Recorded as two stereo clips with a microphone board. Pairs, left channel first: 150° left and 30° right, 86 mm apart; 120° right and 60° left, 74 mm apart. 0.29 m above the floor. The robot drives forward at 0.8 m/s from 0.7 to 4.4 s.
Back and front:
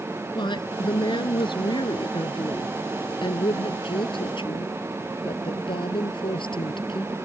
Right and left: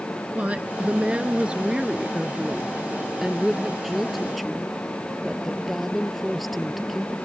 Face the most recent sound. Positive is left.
turn(degrees=150)